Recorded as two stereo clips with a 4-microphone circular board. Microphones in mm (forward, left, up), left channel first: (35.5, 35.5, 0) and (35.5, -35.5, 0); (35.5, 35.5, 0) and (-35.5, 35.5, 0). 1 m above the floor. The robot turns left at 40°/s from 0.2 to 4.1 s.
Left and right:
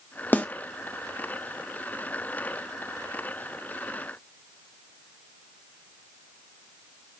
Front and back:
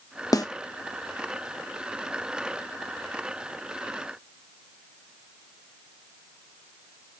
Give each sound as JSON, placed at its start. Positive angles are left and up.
{"t": 0.3, "sound": "a snare drum", "azimuth_deg": 25, "distance_m": 0.7}